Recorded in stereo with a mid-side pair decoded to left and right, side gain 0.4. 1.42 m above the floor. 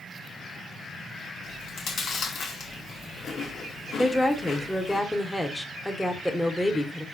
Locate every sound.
1.4 s chewing: 65° left, 0.7 m
4.0 s a woman speaking: 10° left, 0.7 m